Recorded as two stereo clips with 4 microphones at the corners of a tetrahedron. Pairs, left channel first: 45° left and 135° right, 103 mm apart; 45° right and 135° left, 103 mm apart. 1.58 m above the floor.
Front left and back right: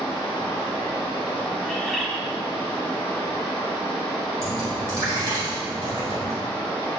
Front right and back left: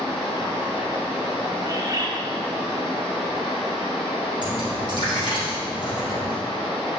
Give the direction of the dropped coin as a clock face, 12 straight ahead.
3 o'clock.